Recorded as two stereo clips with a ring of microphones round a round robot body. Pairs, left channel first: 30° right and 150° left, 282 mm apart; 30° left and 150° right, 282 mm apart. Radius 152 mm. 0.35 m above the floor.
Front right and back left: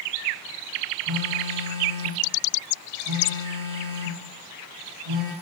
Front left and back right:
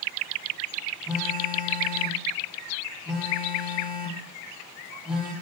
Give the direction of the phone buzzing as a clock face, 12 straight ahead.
8 o'clock.